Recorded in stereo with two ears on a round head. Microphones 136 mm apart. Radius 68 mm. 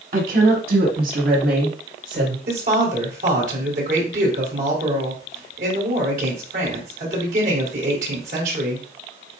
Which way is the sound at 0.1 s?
60° right (ahead or behind).